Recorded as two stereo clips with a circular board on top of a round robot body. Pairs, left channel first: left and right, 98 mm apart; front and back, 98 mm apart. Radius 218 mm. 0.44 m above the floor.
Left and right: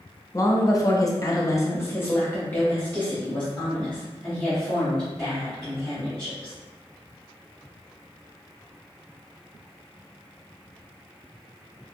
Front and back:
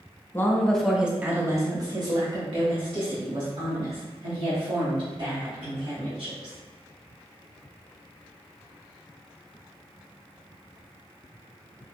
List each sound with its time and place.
0.3 s a woman speaking: 55° left, 1.1 m; by 6.5 s 175° left, 4 m